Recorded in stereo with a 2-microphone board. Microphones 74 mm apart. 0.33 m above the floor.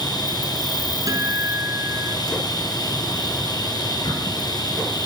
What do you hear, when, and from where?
0.0 s an insect: 80° left, 5 m
1.1 s a guitar: 50° right (ahead or behind), 5 m